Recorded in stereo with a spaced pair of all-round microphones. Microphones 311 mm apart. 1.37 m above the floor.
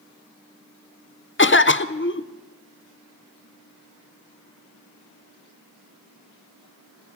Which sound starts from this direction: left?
A cough, at 1.4 s.